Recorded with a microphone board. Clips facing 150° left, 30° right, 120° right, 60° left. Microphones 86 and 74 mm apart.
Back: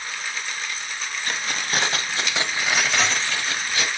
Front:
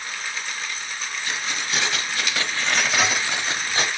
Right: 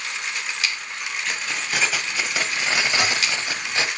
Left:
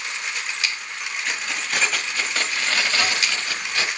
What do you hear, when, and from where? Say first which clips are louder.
1.2 s keys jangling: back 1 dB, left 1 dB; 145° left, 1.0 m; by 3.9 s 65° right, 0.8 m